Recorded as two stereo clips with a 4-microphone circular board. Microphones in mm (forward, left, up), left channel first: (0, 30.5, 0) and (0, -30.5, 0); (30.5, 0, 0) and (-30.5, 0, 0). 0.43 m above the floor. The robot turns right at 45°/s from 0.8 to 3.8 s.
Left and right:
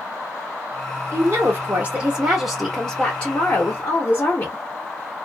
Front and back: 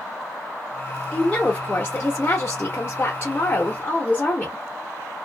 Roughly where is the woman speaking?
Right.